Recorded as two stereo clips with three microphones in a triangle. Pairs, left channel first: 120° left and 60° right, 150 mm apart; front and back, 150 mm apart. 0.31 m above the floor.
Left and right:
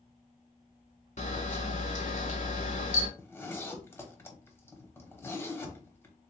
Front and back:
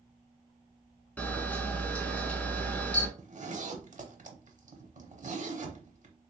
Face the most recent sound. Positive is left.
turn(degrees=-170)